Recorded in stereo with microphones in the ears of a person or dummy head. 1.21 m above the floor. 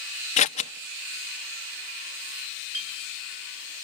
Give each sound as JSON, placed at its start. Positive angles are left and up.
{"t": 0.4, "sound": "scissors", "side_deg": 35, "distance_m": 0.8}
{"t": 2.7, "sound": "a clink", "side_deg": -55, "distance_m": 9.0}